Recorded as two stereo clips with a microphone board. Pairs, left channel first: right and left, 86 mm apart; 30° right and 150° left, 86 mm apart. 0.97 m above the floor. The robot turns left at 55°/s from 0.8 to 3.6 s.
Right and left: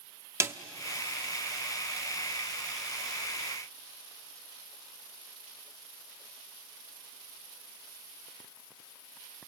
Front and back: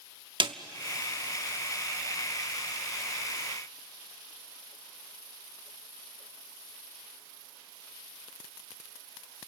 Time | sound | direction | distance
0.4 | a snare drum | 145° left | 0.8 m